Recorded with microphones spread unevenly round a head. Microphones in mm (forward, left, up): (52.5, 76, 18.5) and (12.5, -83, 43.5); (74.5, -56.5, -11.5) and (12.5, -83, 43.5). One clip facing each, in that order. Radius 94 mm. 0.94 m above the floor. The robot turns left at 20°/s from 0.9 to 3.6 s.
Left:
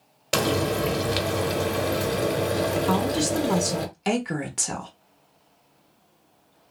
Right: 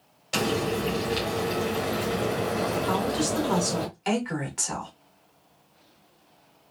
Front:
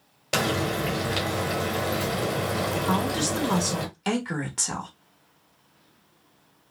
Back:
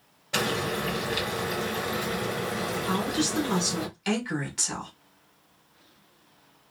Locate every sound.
0.3 s frying: 60° left, 1.1 m; by 3.9 s 5° left, 1.1 m
2.9 s a woman speaking: 50° left, 1.1 m; by 4.9 s 35° left, 1.1 m